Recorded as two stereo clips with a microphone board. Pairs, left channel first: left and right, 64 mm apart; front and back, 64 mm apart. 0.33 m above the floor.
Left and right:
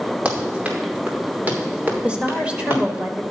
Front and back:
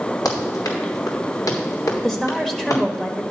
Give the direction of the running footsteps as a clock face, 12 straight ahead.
1 o'clock.